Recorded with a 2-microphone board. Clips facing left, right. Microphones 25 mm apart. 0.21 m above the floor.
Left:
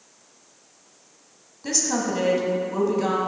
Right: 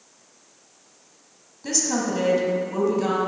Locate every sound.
1.6 s a woman speaking: 5° left (ahead or behind), 1.0 m